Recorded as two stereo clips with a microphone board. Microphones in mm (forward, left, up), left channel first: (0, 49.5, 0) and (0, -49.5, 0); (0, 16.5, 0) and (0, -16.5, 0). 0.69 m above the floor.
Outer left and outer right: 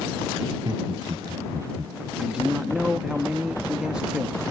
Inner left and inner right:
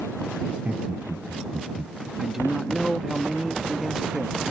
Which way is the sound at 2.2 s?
10° right (ahead or behind).